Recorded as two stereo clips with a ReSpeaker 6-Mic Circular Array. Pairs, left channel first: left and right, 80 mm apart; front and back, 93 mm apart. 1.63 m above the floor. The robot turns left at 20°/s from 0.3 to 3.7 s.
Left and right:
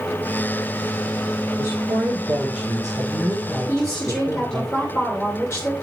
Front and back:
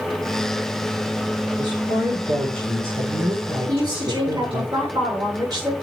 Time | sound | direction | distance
1.6 | a woman speaking | 150° right | 2 m
3.7 | a woman speaking | 145° left | 6 m